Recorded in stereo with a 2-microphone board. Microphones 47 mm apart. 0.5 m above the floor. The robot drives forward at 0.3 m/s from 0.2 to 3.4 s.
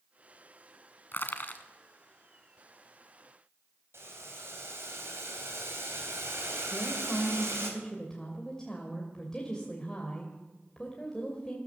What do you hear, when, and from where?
1.1 s crushing: 50° left (ahead or behind), 1.3 m; by 1.6 s 45° left (ahead or behind), 1.4 m
3.9 s boiling: 70° right (ahead or behind), 3 m
6.7 s a woman speaking: 15° left (ahead or behind), 2 m